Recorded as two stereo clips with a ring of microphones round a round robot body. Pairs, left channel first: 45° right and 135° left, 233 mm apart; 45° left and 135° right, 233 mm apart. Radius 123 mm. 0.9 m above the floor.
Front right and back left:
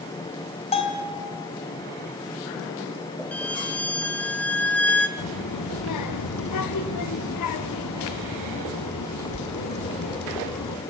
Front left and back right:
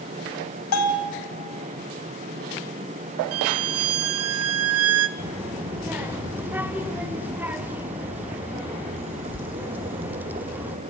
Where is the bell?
20° left, 3 m.